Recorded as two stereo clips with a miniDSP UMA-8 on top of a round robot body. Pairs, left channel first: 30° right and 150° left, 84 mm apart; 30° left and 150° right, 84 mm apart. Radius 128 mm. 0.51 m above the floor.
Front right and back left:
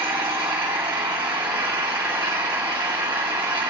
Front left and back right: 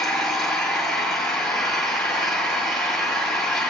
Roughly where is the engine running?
Behind left.